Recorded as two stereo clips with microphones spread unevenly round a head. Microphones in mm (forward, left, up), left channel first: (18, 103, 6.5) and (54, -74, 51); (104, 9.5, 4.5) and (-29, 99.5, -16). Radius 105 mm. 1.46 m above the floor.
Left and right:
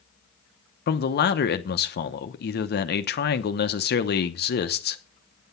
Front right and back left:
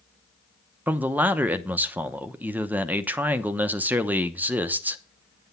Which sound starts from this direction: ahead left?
A man speaking, at 0.9 s.